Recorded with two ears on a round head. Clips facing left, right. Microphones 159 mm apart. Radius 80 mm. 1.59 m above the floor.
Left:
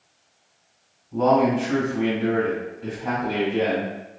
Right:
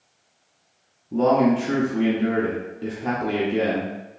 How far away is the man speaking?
About 0.7 m.